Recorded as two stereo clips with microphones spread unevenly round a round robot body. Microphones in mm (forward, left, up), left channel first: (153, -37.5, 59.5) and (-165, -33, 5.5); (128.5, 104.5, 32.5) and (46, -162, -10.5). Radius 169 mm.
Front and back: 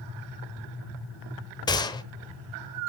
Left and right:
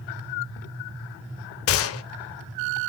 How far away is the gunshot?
About 0.9 m.